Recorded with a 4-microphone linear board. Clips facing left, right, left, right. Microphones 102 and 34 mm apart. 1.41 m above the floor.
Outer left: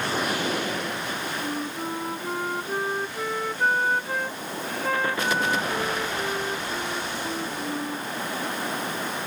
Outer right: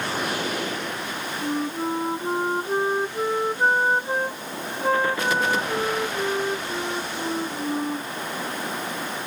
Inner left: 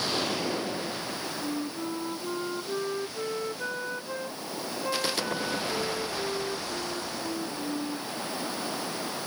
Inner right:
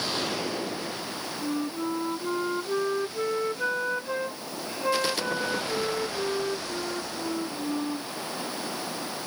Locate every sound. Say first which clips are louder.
1.4 s a flute: outer right 4 dB, inner right 5 dB; 30° right (ahead or behind)